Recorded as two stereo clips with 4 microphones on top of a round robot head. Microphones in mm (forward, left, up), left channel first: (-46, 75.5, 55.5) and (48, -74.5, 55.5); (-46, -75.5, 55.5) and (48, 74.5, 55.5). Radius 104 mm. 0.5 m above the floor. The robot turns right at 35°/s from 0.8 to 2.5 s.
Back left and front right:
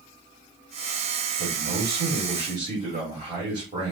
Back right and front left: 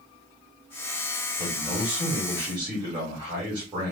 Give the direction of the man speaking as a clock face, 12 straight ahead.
1 o'clock.